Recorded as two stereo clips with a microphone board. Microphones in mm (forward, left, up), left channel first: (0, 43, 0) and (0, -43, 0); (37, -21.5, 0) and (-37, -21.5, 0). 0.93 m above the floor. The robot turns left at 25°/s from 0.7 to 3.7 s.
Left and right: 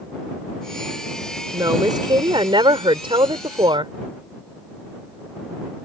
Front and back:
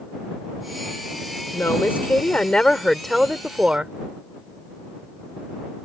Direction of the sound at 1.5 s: 50° right.